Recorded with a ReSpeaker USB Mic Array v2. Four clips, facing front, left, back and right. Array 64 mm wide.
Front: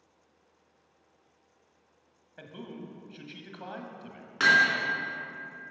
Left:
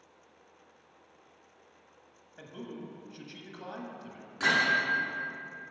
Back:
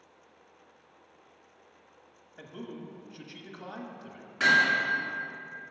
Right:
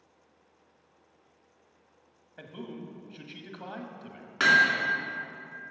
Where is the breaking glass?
I don't hear breaking glass.